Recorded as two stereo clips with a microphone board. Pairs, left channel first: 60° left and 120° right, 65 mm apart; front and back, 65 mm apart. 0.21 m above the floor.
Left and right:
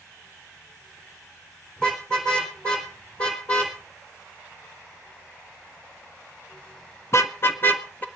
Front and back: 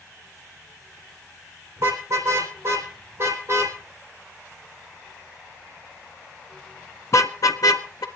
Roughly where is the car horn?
Behind left.